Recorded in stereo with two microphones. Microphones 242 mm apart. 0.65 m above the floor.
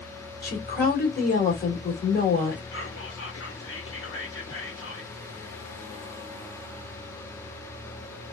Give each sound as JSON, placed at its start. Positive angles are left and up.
{"t": 0.4, "sound": "a woman speaking", "side_deg": 40, "distance_m": 2.0}
{"t": 2.7, "sound": "whispering", "side_deg": 60, "distance_m": 1.4}